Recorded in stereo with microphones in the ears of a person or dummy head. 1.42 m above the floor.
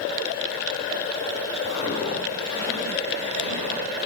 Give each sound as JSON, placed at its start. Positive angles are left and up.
{"t": 1.7, "sound": "footsteps", "side_deg": 40, "distance_m": 2.5}